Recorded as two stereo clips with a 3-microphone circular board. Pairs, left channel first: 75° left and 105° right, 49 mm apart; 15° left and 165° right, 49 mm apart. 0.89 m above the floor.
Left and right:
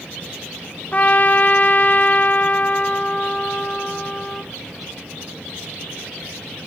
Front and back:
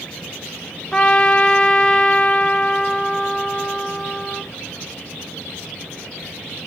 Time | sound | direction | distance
0.9 | a trumpet | 75° left | 0.9 m